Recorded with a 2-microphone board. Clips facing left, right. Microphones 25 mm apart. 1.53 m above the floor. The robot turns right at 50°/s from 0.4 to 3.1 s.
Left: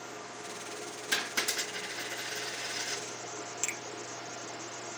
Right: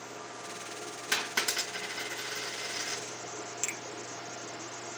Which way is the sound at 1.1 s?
50° right (ahead or behind).